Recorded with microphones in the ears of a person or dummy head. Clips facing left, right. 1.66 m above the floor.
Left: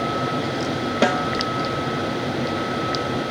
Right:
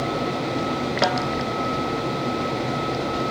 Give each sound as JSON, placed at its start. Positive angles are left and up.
{"t": 1.0, "sound": "a snare drum", "side_deg": 35}